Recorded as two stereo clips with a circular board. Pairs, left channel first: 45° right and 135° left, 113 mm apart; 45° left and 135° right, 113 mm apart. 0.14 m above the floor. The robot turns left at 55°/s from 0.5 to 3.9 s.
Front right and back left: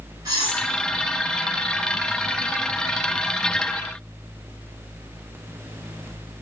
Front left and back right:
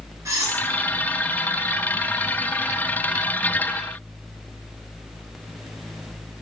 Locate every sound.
0.2 s cutlery clinking: 175° left, 1.1 m; by 0.6 s 165° left, 1.1 m